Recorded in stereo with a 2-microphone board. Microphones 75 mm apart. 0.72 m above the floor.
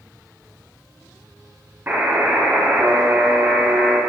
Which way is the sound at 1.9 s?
30° right (ahead or behind).